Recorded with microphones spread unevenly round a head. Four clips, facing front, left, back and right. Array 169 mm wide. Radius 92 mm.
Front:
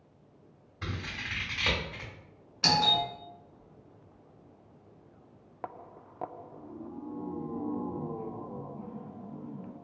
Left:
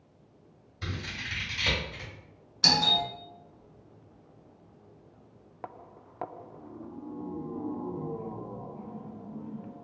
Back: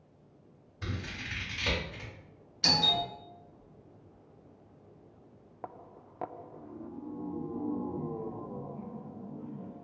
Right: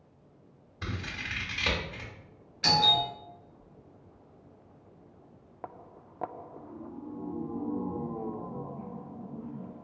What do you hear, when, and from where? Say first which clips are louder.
0.8 s scissors: right 1 dB, front 1 dB; 25° right, 1.8 m
2.6 s a doorbell: right 2 dB, front 4 dB; 10° left, 1.1 m